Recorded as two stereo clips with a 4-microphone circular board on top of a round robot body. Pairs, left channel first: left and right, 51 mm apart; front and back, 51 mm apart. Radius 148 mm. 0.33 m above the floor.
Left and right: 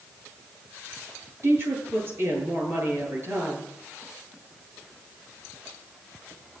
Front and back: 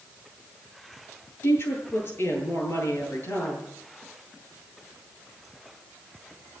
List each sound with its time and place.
1.4 s a woman speaking: 45° right, 9.5 m